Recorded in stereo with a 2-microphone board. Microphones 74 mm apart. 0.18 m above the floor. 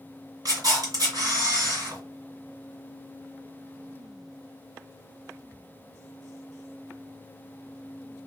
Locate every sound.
0.5 s a camera shutter: 50° right (ahead or behind), 2 m